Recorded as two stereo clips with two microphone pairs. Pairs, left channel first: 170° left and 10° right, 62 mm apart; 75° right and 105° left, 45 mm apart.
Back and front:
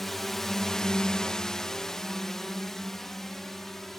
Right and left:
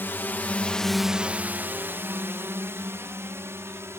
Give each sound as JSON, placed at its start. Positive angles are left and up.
{"t": 0.0, "sound": "a drone", "azimuth_deg": -105}